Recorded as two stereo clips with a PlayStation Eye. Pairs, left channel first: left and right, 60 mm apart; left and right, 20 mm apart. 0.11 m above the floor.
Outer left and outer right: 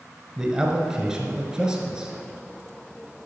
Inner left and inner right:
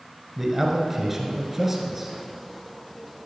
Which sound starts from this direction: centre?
A man speaking, at 0.4 s.